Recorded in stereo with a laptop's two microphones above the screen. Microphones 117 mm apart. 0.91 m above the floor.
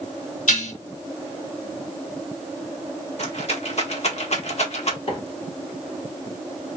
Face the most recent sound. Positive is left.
turn(degrees=50)  # may be behind; listen again after turning